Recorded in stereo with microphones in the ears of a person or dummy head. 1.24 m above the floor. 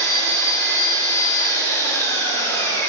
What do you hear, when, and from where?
0.0 s an engine running: 20° left (ahead or behind), 1.7 m